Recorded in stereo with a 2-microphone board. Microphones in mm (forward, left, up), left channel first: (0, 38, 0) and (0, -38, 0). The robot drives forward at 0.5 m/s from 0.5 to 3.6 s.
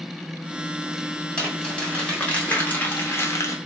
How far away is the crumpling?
About 1.5 m.